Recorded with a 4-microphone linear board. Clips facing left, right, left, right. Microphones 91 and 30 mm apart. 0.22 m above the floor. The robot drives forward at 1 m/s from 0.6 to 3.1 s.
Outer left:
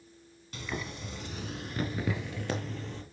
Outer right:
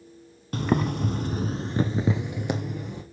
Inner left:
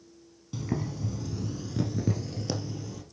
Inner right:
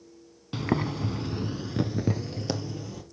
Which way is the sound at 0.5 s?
50° right (ahead or behind).